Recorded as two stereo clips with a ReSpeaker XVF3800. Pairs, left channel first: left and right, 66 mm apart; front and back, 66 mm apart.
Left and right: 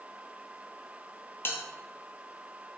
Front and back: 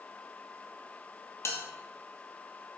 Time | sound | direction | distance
1.4 | a bell | 35° left | 0.5 m